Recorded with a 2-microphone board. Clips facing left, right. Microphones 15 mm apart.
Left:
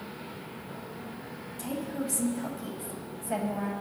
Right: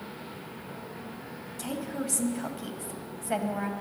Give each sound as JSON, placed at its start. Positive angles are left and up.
{"t": 1.6, "sound": "a woman speaking", "side_deg": -30, "distance_m": 1.5}